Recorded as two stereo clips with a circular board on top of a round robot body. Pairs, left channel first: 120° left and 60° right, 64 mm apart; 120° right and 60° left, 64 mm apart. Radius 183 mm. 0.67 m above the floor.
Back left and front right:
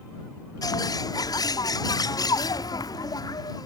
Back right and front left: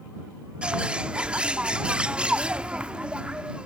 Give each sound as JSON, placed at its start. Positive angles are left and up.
{"t": 0.6, "sound": "a bird", "azimuth_deg": 130}